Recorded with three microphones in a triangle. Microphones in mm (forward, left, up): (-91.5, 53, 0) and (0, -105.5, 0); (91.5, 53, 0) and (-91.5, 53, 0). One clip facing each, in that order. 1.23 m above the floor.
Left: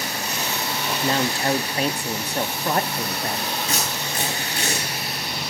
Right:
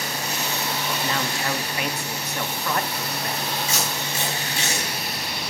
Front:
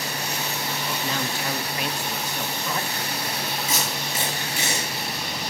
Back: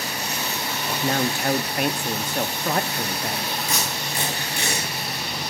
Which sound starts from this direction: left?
Tape being pulled, at 3.7 s.